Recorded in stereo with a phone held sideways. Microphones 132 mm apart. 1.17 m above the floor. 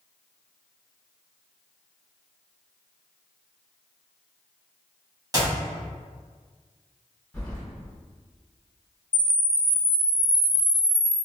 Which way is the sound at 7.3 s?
10° left (ahead or behind).